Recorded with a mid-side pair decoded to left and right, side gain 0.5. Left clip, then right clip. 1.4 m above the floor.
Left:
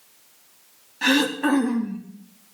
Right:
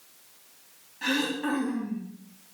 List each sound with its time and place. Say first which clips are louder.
1.0 s throat clearing: left 7 dB; 55° left, 3.5 m